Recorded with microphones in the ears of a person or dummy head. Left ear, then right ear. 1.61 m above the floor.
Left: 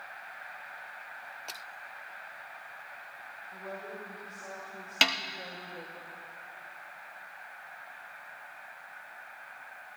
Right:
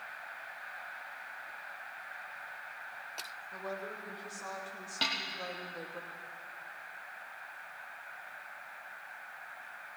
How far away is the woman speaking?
About 3.5 m.